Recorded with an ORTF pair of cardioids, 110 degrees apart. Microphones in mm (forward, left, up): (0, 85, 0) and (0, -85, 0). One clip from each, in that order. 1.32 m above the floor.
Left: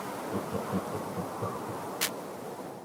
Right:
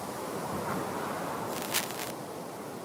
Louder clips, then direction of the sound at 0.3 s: Even; 55° left.